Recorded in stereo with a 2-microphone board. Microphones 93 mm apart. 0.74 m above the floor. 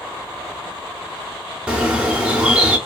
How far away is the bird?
About 1.3 m.